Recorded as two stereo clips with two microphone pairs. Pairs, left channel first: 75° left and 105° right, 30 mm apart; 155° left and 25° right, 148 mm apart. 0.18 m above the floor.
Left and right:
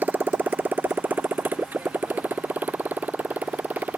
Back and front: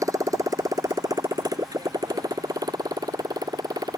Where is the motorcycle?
95° right; by 4.0 s 90° right.